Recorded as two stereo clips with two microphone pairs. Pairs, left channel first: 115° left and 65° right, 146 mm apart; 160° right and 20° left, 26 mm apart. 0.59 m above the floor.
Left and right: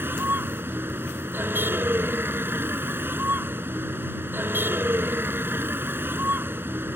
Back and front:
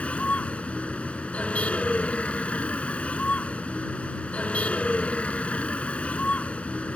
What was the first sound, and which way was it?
A vehicle, 140° right.